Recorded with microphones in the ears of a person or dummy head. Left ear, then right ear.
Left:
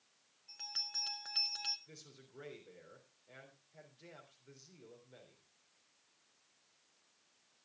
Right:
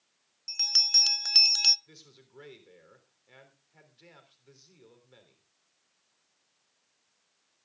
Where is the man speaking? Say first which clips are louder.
Right 3 dB; 35° right (ahead or behind), 3.5 m.